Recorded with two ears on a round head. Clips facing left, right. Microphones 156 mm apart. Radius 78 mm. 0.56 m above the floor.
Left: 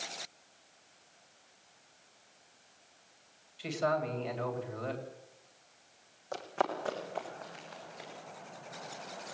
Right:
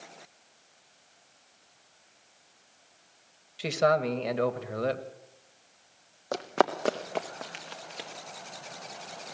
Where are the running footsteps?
65° right (ahead or behind), 1.7 m; by 8.1 s 80° right, 4 m.